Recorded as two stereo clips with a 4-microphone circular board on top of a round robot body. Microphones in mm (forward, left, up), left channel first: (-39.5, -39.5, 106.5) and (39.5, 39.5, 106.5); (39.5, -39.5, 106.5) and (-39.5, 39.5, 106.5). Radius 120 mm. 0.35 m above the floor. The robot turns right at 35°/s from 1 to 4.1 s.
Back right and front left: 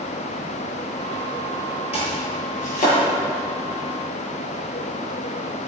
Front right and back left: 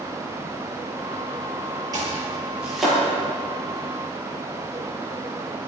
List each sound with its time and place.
1.9 s chopping: 170° right, 7.5 m; by 3.0 s 130° right, 7.5 m